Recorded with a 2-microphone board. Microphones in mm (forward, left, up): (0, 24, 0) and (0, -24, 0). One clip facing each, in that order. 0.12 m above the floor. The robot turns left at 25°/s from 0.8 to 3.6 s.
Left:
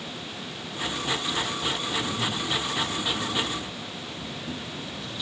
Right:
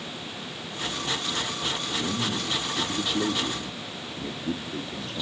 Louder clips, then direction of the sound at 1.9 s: Even; 60° right.